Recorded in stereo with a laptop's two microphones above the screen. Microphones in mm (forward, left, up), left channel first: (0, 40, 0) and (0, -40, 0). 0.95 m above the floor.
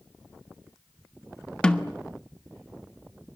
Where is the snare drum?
10° left (ahead or behind), 1.3 m.